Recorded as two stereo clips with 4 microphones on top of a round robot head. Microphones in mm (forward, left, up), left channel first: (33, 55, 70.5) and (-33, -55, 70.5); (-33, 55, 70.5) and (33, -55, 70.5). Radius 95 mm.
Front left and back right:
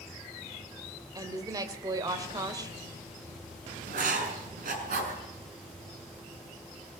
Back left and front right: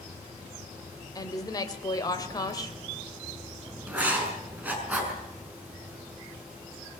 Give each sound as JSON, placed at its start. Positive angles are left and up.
{"t": 1.1, "sound": "a woman speaking", "azimuth_deg": 180, "distance_m": 3.0}
{"t": 3.9, "sound": "writing", "azimuth_deg": -140, "distance_m": 6.0}